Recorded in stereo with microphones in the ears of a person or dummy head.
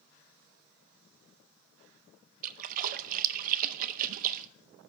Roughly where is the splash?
Right.